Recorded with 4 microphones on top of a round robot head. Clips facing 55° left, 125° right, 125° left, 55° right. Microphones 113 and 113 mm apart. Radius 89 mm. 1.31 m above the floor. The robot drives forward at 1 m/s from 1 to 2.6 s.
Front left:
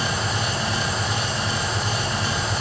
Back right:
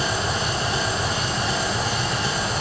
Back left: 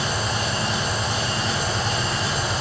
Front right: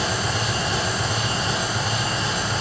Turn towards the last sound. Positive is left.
turn(degrees=-155)